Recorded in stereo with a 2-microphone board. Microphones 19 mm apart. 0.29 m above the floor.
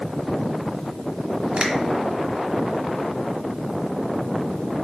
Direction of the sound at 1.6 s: 70° right (ahead or behind).